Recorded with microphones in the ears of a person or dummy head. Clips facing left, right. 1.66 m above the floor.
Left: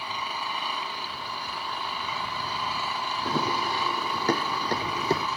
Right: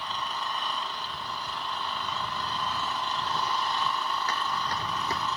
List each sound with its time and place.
0.0 s an engine running: 10° left (ahead or behind)
3.2 s running footsteps: 50° left (ahead or behind); by 5.3 s 25° left (ahead or behind)